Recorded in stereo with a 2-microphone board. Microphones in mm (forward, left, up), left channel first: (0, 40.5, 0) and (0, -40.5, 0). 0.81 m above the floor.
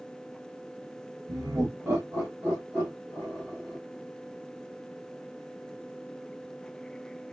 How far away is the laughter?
About 1.4 m.